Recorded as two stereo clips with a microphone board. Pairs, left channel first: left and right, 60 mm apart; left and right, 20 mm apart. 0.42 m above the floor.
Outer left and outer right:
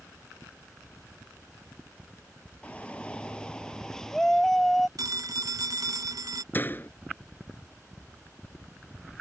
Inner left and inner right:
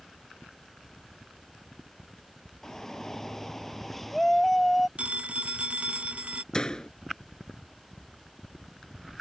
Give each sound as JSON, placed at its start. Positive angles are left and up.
{"t": 2.6, "sound": "a shout", "side_deg": 20}
{"t": 5.0, "sound": "a phone ringing", "side_deg": -80}
{"t": 6.5, "sound": "a door slam", "side_deg": 30}